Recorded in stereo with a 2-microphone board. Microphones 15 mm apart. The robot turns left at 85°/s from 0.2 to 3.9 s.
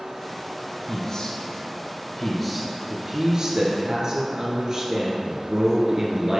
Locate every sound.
0.9 s a man speaking: 135° left, 1.9 m; by 6.4 s 120° right, 1.9 m